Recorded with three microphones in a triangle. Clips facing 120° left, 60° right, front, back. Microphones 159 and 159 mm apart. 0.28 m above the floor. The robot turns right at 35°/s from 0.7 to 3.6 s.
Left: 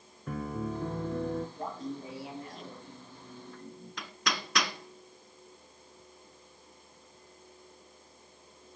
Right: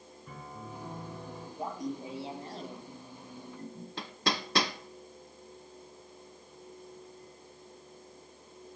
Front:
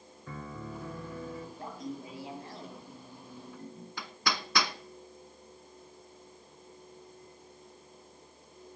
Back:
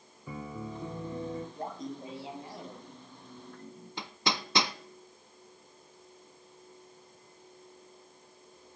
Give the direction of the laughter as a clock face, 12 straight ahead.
5 o'clock.